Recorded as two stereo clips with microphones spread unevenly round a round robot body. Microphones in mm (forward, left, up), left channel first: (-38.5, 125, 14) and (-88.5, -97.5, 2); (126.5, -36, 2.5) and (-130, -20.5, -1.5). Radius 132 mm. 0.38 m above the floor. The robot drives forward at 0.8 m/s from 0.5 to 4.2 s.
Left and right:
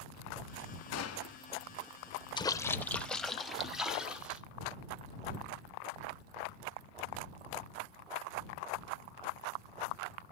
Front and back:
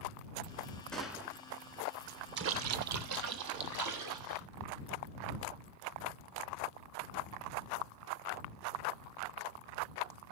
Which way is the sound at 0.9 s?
85° left.